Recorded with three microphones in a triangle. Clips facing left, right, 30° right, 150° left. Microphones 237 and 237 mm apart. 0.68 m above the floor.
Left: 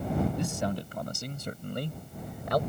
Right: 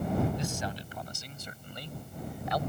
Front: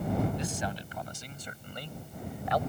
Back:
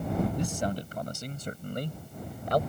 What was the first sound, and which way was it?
A man speaking, 115° left.